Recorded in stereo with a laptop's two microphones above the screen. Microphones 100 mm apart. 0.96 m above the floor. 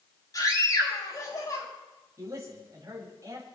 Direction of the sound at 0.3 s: 40° left (ahead or behind).